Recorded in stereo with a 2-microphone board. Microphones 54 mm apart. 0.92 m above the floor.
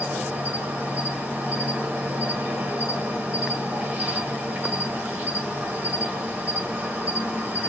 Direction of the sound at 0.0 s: 30° right (ahead or behind).